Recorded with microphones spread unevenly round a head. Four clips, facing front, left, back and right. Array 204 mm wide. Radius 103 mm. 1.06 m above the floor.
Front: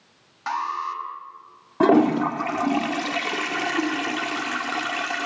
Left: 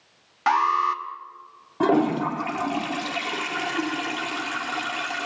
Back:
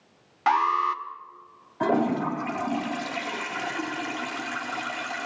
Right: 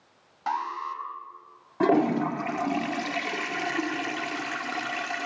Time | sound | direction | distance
0.5 | an alarm | 100° left | 1.3 m
1.8 | a toilet flushing | 5° left | 1.5 m